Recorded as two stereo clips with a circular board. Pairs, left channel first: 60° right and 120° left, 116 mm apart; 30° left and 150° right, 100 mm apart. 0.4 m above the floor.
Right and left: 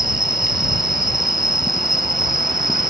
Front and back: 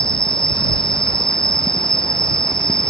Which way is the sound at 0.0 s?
70° left.